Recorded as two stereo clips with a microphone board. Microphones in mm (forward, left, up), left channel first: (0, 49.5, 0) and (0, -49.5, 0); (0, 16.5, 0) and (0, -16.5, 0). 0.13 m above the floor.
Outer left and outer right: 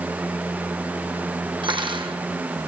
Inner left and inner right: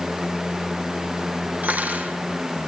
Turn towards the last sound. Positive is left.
turn(degrees=-55)  # may be behind; listen again after turning